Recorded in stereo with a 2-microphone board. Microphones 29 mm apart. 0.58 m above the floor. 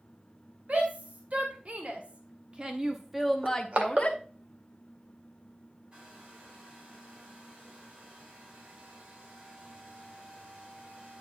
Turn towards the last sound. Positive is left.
turn(degrees=-40)  # may be behind; listen again after turning